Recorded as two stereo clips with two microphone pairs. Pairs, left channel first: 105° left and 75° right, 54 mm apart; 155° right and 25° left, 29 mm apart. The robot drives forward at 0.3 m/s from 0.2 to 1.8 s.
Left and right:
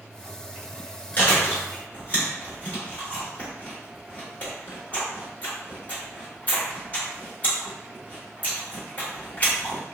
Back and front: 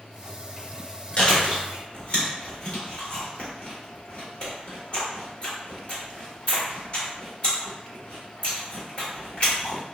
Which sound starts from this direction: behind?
Chewing, at 1.2 s.